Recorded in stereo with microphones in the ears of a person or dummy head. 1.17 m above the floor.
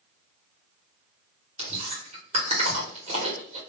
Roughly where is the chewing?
Right.